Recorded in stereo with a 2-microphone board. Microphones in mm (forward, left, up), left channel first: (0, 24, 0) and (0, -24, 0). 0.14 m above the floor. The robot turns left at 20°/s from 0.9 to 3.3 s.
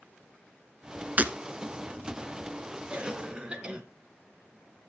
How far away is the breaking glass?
About 0.8 m.